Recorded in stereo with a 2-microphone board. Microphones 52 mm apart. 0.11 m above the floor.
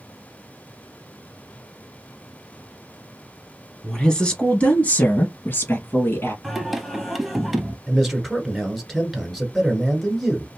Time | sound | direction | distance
3.8 | a woman speaking | 10° left (ahead or behind) | 1.4 m
6.4 | singing | centre (ahead or behind) | 0.7 m
7.9 | a man speaking | centre (ahead or behind) | 1.6 m